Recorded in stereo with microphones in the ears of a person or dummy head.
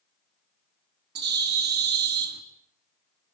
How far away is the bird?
About 2 m.